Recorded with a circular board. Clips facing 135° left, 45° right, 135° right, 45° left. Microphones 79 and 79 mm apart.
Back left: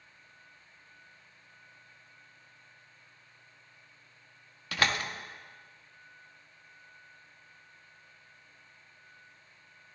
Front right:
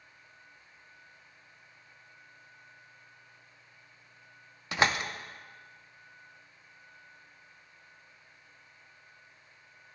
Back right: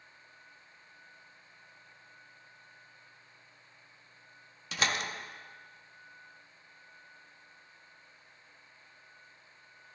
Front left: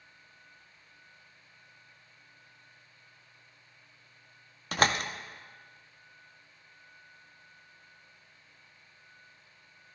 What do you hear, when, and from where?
4.7 s a door slam: 20° left, 0.6 m